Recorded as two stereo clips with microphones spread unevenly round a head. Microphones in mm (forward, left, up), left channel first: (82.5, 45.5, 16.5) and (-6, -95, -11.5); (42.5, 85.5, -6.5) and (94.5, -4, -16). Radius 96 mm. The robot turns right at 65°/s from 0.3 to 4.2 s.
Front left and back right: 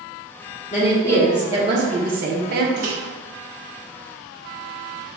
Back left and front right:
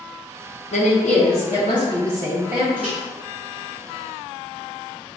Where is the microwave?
125° right, 1.1 m; by 3.0 s 115° right, 1.1 m.